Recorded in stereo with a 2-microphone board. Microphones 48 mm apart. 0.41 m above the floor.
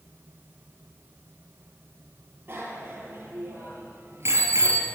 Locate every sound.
2.5 s a bicycle bell: 50° right (ahead or behind), 7.5 m; by 4.9 s 75° right (ahead or behind), 5.5 m